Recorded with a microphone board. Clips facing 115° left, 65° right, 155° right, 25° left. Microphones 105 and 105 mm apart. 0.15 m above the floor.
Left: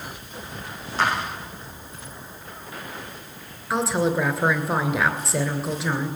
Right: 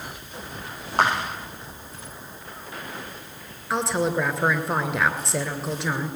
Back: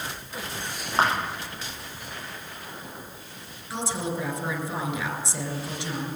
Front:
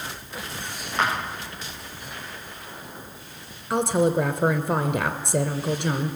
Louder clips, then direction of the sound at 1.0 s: Right 2 dB, back 2 dB; 105° right.